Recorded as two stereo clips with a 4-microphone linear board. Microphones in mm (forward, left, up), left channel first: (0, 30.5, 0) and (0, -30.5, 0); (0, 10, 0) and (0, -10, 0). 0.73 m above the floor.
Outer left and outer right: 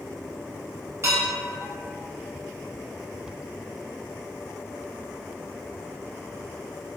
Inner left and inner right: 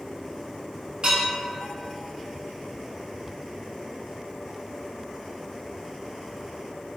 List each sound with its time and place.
1.0 s dishes clattering: 40° right (ahead or behind), 1.0 m